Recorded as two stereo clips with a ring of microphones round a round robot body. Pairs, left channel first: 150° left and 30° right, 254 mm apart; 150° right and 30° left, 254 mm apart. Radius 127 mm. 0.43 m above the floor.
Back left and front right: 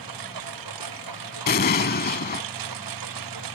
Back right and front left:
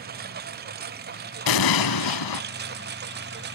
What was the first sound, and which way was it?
A lawn mower, 25° right.